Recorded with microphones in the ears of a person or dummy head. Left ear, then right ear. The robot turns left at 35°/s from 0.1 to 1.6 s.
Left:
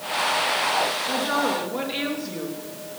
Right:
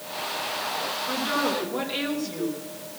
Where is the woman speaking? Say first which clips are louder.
Left 2 dB; 10° left (ahead or behind), 2.5 m; by 2.6 s 10° right (ahead or behind), 2.5 m.